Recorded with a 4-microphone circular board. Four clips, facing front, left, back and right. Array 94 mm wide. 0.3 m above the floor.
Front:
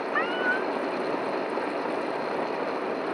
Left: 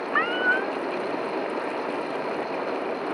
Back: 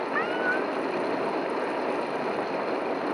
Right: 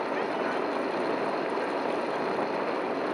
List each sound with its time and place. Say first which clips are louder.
0.1 s a cat meowing: left 8 dB, front 1 dB; 85° left